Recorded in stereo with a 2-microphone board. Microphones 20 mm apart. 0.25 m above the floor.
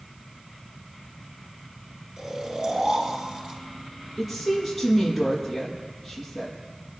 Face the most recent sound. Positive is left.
turn(degrees=-5)  # may be behind; listen again after turning